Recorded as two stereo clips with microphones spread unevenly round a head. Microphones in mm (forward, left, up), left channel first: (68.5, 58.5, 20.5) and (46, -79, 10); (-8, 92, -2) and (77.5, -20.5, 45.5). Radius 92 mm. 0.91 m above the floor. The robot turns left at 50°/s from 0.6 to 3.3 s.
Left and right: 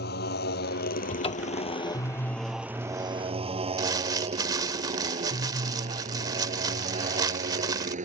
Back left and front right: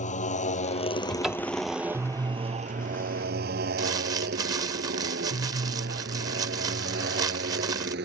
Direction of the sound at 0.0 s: 90° left.